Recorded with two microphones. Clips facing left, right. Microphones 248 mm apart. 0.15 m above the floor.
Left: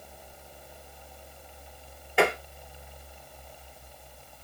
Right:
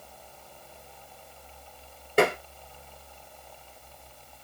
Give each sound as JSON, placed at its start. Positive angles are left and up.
{"t": 2.2, "sound": "tapping", "side_deg": -45, "distance_m": 1.7}